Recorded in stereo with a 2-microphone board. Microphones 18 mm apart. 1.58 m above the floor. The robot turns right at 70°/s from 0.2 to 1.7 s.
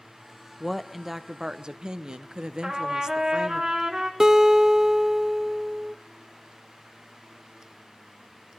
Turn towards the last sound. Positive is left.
turn(degrees=-25)  # may be behind; listen again after turning